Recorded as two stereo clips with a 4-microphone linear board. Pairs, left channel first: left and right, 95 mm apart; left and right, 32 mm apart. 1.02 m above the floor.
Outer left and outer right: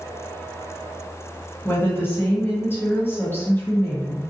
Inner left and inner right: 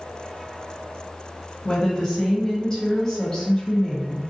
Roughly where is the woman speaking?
Left.